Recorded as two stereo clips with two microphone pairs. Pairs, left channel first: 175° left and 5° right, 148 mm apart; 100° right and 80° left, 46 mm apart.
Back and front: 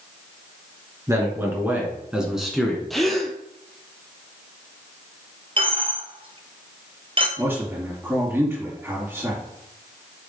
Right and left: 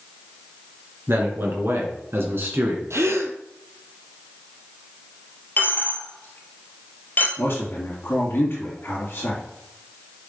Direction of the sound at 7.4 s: 80° right.